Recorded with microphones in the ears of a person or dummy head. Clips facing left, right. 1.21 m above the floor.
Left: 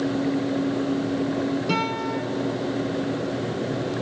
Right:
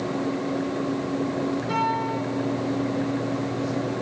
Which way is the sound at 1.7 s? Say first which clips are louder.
Even; 40° left (ahead or behind).